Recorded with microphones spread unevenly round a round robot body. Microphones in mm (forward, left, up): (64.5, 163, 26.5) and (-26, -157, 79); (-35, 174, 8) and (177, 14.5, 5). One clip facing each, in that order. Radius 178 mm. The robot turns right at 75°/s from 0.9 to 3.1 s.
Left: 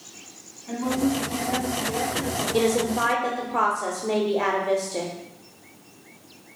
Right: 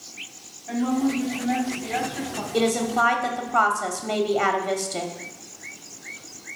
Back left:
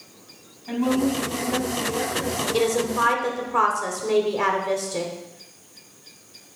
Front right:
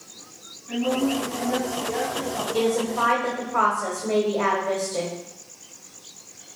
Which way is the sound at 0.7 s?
160° left.